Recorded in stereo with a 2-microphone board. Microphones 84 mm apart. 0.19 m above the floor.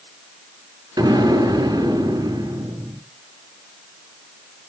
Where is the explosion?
55° right (ahead or behind), 3.5 m.